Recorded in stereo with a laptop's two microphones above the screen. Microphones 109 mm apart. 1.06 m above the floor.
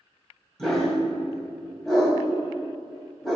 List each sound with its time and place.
0.6 s a dog barking: 5° left (ahead or behind), 2 m